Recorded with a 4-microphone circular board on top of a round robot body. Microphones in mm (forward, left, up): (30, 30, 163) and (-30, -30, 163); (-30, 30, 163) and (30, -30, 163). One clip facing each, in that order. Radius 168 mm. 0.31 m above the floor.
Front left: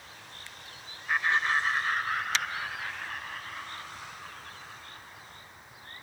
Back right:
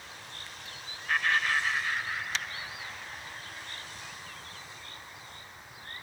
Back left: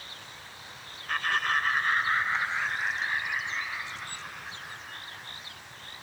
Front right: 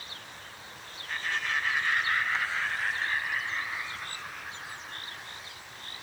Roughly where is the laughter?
Behind left.